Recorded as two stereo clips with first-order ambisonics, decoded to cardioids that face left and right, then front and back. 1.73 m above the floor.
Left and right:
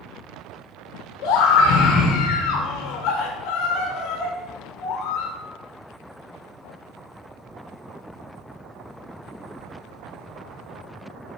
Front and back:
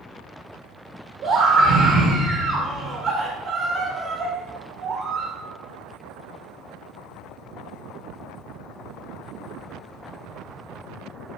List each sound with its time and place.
1.2 s a scream: 135° left, 1.6 m